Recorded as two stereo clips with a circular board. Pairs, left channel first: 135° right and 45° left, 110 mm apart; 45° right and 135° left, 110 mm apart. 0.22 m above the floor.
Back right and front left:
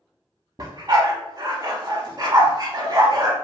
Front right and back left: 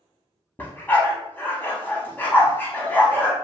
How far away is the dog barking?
About 0.6 m.